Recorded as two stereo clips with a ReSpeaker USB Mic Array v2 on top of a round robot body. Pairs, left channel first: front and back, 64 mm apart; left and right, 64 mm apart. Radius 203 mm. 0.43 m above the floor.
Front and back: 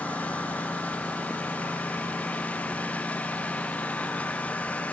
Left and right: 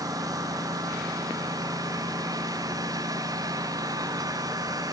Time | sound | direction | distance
0.0 | a lawn mower | 70° right | ?